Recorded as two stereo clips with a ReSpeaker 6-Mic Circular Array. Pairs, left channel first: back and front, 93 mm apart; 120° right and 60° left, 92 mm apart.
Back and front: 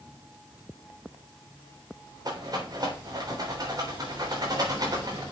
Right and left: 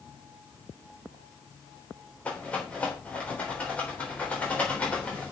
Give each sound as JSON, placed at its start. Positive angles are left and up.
{"t": 2.2, "sound": "a rattle", "azimuth_deg": -45, "distance_m": 3.5}